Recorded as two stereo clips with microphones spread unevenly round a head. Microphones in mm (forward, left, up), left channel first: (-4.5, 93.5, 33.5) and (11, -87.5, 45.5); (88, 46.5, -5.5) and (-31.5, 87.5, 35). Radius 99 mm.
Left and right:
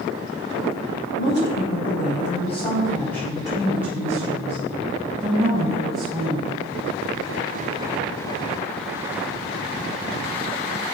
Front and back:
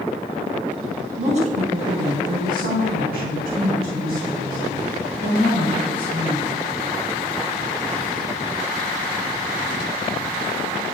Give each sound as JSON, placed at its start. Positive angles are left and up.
{"t": 1.2, "sound": "a woman speaking", "azimuth_deg": 115, "distance_m": 1.4}